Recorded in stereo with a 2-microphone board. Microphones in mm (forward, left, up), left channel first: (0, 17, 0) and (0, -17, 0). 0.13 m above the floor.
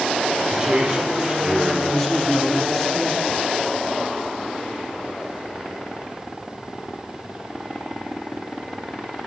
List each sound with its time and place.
0.5 s a man speaking: 20° right (ahead or behind), 4 m; by 1.8 s 25° right (ahead or behind), 5 m
1.9 s a man speaking: 10° left (ahead or behind), 2 m